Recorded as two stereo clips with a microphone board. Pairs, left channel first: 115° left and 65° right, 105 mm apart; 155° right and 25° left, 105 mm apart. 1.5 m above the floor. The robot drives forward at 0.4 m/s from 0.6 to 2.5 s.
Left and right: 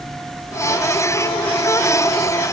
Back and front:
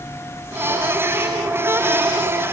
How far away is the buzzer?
I don't hear a buzzer.